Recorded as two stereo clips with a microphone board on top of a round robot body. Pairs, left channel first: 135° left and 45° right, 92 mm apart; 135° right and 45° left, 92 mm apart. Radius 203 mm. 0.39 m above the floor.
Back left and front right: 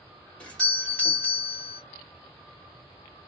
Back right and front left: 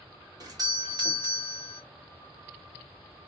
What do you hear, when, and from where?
0.4 s a doorbell: 60° left, 2.0 m